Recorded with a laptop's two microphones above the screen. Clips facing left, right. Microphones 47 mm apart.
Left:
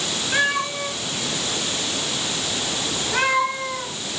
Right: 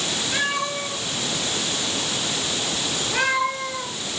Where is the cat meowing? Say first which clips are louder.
Left 4 dB; 45° left (ahead or behind), 9 m; by 3.9 s 40° left (ahead or behind), 7 m.